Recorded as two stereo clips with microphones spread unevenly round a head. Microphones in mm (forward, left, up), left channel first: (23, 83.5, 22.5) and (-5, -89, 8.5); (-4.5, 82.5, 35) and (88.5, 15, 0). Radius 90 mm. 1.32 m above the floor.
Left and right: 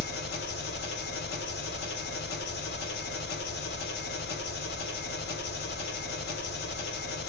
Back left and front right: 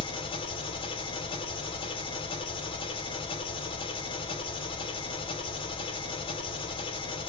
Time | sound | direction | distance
0.0 | an engine running | 110° left | 0.8 m